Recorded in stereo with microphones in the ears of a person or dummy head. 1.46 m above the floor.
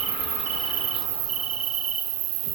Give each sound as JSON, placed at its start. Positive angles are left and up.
{"t": 0.0, "sound": "an insect", "side_deg": -75, "distance_m": 1.1}